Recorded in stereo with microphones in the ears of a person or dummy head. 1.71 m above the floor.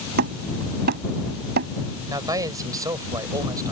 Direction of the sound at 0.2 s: 50° right (ahead or behind).